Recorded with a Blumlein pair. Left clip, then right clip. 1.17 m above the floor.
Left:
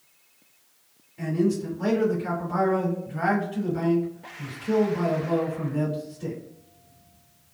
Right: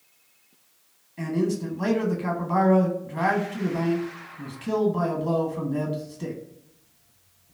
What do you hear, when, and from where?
1.2 s a man speaking: 50° right, 1.4 m